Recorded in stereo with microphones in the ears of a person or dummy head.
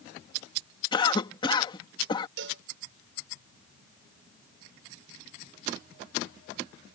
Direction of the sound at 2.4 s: 75° right (ahead or behind).